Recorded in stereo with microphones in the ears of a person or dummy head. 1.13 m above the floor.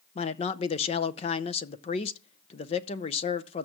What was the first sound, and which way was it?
A man speaking, 30° left (ahead or behind).